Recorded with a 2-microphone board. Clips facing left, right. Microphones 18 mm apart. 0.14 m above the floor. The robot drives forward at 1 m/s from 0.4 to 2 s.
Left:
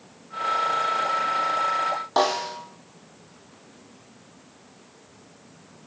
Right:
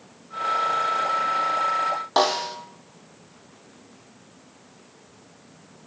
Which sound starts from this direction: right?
A snare drum, at 2.2 s.